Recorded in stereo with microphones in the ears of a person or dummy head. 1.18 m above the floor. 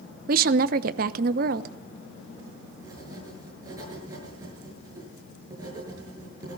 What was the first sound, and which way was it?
A woman speaking, 60° right (ahead or behind).